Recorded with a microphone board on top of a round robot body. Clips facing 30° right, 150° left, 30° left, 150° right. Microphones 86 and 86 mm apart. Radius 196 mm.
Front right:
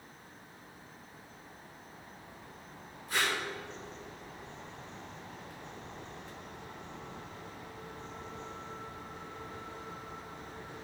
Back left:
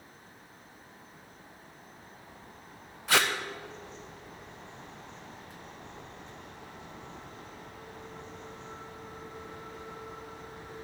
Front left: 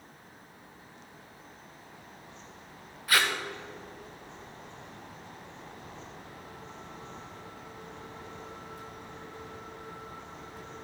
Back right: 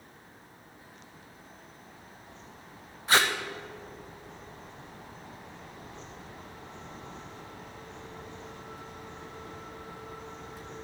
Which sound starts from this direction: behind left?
Tape being pulled, at 3.1 s.